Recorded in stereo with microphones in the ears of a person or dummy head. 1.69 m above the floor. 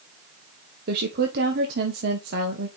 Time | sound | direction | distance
0.9 | a woman speaking | 65° right (ahead or behind) | 1.5 m